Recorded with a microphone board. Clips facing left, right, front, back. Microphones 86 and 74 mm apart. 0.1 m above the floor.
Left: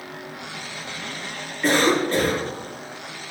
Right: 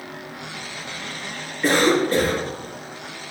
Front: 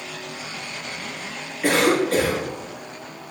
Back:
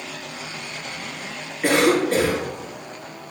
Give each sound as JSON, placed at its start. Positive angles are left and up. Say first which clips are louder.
{"t": 1.6, "sound": "a cough", "louder": "right 1 dB, back 1 dB", "azimuth_deg": -150, "distance_m": 1.6}